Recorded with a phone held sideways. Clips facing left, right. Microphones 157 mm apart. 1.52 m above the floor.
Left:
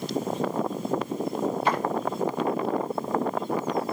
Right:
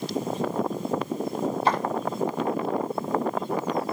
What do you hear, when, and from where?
1.6 s footsteps: 35° right (ahead or behind), 2 m